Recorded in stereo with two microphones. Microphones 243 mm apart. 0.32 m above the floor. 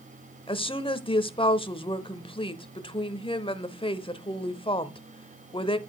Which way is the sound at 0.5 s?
20° left (ahead or behind).